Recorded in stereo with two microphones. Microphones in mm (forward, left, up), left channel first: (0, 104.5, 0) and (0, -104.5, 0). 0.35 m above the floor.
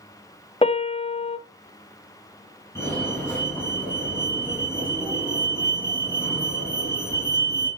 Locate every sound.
0.6 s a piano: 30° left (ahead or behind), 0.6 m
2.8 s a fire alarm: 15° left (ahead or behind), 7 m